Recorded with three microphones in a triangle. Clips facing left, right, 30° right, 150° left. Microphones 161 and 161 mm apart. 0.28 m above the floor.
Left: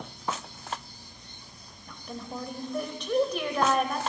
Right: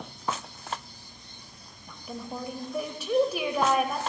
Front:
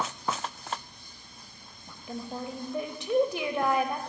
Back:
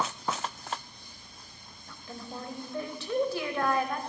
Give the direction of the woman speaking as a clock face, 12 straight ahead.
1 o'clock.